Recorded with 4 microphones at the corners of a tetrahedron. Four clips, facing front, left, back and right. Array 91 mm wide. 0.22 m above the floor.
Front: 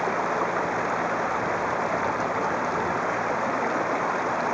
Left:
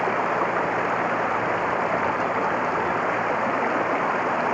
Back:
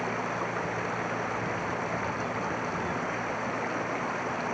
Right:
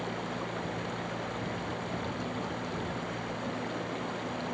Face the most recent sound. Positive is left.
turn(degrees=65)